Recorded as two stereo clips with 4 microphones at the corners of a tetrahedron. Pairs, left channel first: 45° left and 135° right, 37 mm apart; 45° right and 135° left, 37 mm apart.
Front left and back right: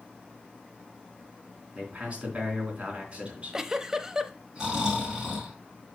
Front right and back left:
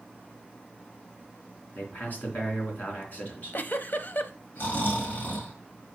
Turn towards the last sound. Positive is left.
turn(degrees=-65)